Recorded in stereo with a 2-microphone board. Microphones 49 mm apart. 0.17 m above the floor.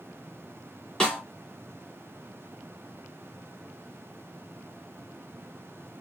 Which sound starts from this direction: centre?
A snare drum, at 1.0 s.